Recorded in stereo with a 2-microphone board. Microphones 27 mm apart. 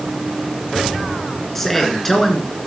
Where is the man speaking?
10° left (ahead or behind), 2.5 m.